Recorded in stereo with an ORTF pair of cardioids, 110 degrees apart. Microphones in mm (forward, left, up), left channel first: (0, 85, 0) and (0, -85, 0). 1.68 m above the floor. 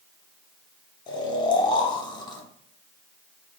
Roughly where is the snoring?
Ahead left.